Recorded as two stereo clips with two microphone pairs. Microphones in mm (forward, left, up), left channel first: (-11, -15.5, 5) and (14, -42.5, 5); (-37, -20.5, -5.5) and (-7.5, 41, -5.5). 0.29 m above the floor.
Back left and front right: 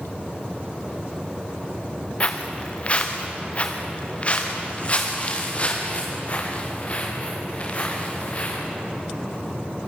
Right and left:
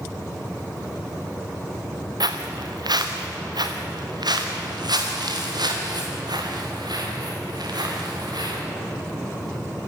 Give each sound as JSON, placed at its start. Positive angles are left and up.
{"t": 2.2, "sound": "footsteps", "azimuth_deg": 75, "distance_m": 2.0}